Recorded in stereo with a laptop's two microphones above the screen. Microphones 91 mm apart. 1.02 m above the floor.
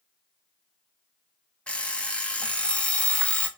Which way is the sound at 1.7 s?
15° left (ahead or behind).